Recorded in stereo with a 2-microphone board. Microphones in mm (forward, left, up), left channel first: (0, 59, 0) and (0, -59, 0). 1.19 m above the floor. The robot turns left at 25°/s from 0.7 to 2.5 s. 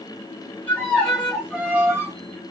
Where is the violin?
15° left, 2 m; by 2.1 s 25° right, 2 m.